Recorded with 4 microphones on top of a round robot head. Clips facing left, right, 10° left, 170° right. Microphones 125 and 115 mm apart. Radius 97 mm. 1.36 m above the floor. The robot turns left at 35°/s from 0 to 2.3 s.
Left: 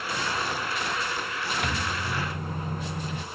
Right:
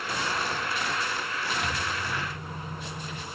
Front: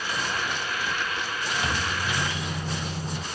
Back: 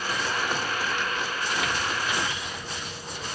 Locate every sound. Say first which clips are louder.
1.6 s a microwave: left 1 dB, even; 70° left, 0.7 m; by 3.2 s 45° left, 0.7 m